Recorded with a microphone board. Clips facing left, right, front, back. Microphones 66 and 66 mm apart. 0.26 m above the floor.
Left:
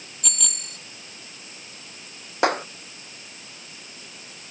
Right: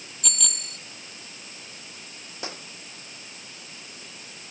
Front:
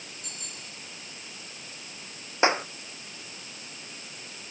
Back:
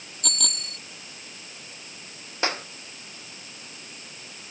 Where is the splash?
I don't hear a splash.